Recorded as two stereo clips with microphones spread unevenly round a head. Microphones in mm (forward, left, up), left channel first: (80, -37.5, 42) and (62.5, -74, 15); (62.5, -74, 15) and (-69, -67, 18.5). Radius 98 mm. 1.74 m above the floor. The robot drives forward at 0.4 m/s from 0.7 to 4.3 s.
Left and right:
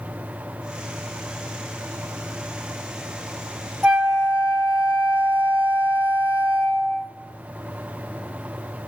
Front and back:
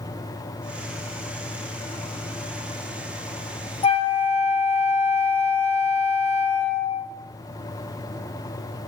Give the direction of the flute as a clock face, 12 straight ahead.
1 o'clock.